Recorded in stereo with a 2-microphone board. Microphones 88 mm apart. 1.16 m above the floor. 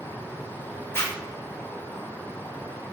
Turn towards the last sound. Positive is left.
turn(degrees=25)  # may be behind; listen again after turning